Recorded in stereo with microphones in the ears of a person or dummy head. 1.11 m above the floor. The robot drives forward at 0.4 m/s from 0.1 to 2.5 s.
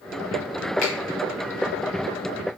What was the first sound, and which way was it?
A finger snap, 45° left (ahead or behind).